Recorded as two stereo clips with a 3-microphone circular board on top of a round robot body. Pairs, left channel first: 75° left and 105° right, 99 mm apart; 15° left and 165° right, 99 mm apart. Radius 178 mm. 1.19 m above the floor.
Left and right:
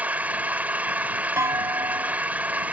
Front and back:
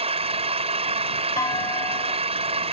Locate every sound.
0.0 s an engine running: straight behind
1.4 s a clunk: 45° right